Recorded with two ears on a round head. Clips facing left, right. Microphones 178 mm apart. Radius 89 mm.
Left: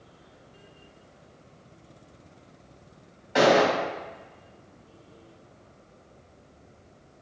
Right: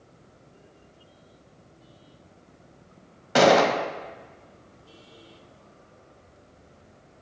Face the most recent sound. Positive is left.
turn(degrees=-65)  # may be behind; listen again after turning